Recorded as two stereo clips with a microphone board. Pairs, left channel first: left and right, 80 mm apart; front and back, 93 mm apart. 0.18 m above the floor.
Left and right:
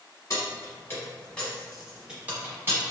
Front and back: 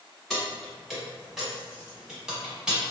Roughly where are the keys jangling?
Left.